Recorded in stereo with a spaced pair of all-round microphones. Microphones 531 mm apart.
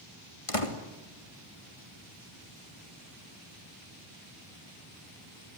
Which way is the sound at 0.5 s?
80° left.